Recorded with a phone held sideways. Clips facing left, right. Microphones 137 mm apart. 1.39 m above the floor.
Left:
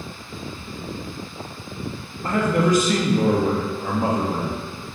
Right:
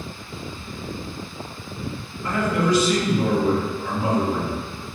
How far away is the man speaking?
About 0.9 m.